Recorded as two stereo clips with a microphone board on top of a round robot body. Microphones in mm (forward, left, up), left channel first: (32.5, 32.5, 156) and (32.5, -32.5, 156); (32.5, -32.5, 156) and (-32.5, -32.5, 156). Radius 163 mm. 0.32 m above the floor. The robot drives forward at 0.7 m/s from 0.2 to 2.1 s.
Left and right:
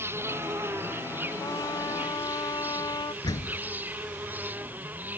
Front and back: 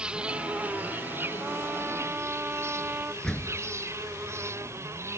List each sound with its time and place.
0.0 s an insect: 115° right; by 5.2 s 145° right
1.4 s a trumpet: 110° left
3.2 s a door slam: 80° left